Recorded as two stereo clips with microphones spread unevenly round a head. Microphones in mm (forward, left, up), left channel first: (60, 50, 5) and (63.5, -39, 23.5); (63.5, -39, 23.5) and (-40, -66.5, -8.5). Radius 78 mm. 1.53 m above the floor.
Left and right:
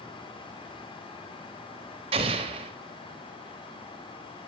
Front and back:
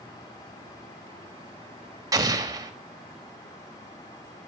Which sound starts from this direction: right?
An explosion, at 2.1 s.